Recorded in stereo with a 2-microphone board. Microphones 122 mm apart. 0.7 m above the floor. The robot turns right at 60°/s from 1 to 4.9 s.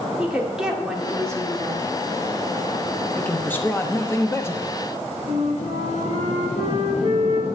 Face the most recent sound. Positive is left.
turn(degrees=85)